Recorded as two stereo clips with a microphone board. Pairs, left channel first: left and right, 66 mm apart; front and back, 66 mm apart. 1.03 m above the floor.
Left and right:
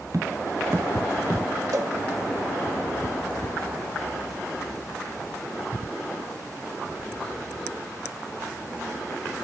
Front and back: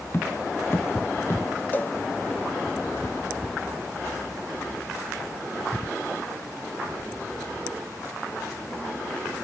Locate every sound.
0.1 s tapping: 55° right
1.7 s a cowbell: 60° right